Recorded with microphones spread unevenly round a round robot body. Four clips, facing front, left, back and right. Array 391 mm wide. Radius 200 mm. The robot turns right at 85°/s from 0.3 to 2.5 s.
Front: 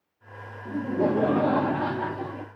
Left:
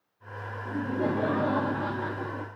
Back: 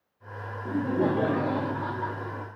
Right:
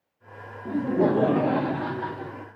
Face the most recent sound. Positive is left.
turn(degrees=45)